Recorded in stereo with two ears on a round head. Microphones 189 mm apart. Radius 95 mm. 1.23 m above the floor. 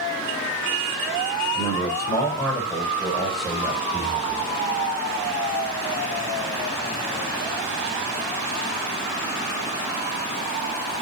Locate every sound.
1.6 s a man speaking: 20° left (ahead or behind), 5.5 m; by 4.5 s 15° right (ahead or behind), 7.5 m